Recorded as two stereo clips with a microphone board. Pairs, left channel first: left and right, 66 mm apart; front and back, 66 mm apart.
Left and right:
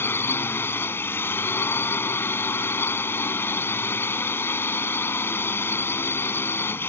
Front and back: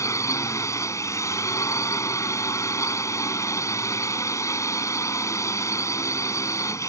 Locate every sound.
0.0 s a drone: 40° left